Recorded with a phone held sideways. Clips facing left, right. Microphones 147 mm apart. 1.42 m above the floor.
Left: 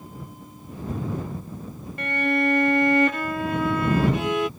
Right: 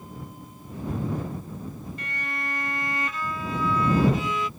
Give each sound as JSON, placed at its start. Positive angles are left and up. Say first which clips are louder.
{"t": 2.0, "sound": "a violin", "louder": "left 18 dB", "side_deg": 65}